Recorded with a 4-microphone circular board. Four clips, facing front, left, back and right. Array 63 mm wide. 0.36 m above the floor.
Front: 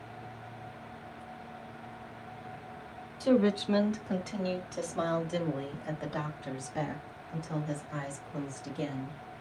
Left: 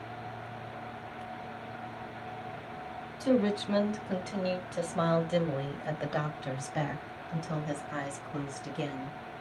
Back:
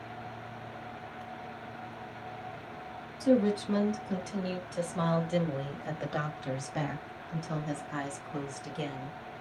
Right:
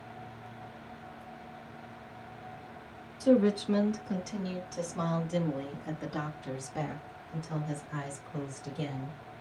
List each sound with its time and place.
3.2 s a woman speaking: 30° left, 1.2 m; by 9.2 s 135° left, 3.5 m